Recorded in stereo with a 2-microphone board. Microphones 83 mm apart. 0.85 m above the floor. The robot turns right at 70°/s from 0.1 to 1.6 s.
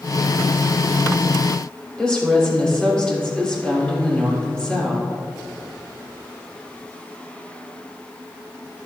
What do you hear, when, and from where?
2.0 s a woman speaking: 10° left (ahead or behind), 3.5 m